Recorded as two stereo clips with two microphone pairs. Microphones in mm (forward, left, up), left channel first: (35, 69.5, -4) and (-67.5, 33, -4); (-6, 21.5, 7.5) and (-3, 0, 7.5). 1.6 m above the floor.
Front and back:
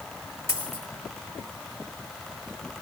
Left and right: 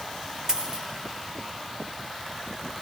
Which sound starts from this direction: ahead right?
A dropped coin, at 0.5 s.